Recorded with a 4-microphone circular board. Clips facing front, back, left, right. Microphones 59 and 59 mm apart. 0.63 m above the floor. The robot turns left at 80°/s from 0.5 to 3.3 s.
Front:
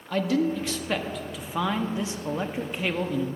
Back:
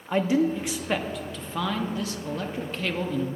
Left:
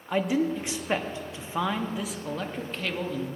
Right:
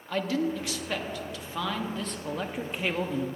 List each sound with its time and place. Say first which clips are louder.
0.1 s a man speaking: back 2 dB, left 3 dB; 140° left, 0.9 m; by 3.3 s 85° right, 0.9 m